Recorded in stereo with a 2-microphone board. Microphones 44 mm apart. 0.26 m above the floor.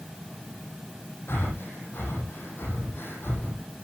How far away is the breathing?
About 7.5 m.